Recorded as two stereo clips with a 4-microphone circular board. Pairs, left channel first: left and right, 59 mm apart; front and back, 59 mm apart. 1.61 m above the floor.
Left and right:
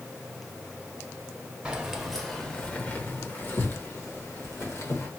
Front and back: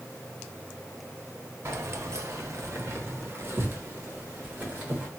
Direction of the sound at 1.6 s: 160° right.